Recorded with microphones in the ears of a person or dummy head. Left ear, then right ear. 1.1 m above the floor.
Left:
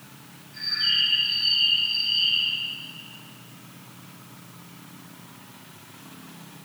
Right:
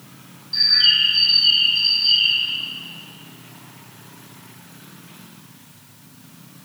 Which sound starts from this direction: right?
A bird, at 0.5 s.